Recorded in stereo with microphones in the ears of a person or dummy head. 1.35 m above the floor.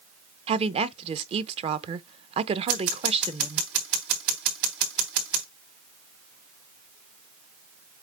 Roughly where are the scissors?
Right.